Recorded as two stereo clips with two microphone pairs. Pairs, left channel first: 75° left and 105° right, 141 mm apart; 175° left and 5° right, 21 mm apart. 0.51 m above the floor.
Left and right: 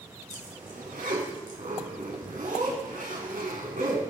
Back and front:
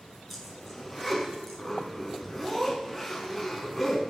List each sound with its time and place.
0.3 s a zipper: 95° right, 4.5 m